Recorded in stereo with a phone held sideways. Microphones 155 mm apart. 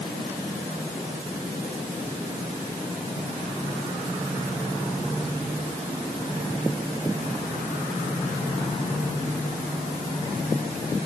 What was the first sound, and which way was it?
Only background noise.